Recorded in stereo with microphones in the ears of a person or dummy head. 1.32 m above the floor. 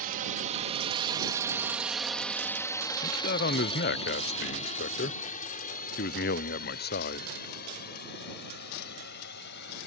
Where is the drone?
45° right (ahead or behind); by 9.9 s 60° left (ahead or behind).